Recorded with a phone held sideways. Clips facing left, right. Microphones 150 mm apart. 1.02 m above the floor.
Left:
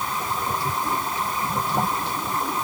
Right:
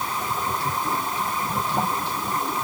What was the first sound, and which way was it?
Only background noise.